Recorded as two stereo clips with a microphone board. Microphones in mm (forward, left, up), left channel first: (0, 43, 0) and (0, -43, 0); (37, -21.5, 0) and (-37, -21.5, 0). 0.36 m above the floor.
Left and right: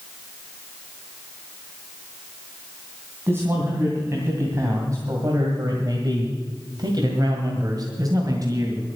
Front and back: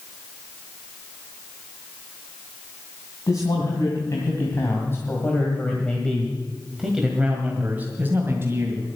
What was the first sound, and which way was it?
A man speaking, 30° right.